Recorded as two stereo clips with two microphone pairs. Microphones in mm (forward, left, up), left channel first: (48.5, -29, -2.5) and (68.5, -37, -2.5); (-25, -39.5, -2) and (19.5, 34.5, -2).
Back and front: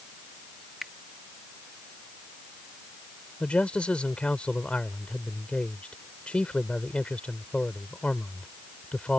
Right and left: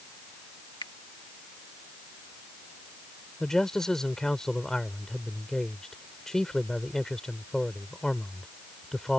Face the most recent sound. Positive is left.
turn(degrees=155)